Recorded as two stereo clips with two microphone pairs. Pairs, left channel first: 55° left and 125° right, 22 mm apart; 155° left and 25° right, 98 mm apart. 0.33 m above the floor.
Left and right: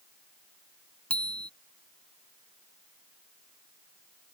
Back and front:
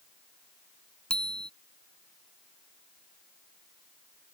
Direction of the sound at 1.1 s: 75° left.